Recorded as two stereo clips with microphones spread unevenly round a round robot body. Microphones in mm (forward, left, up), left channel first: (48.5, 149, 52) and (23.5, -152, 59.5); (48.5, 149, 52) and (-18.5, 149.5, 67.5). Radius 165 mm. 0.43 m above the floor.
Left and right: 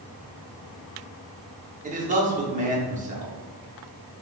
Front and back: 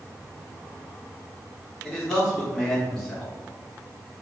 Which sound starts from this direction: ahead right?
A man speaking, at 1.8 s.